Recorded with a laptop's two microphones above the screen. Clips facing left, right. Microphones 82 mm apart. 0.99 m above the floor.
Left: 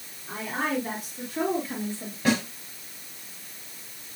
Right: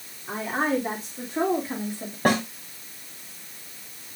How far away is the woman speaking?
About 3.5 m.